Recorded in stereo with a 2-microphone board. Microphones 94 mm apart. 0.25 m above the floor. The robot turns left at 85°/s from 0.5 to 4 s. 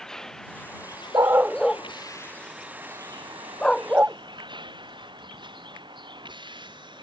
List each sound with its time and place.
0.0 s a vehicle: 5° left (ahead or behind); by 7.0 s 55° right (ahead or behind)
1.1 s a dog barking: 45° right (ahead or behind); by 4.2 s 20° right (ahead or behind)